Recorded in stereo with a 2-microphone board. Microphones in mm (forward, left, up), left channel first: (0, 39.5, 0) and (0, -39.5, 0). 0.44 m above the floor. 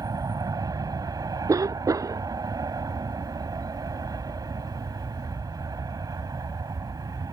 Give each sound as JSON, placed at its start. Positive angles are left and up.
{"t": 0.0, "sound": "an aircraft", "side_deg": -50}
{"t": 1.5, "sound": "a cough", "side_deg": -45}